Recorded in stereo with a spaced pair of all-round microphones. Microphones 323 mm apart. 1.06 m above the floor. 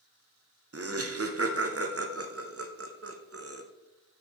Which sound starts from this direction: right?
Laughter, at 0.7 s.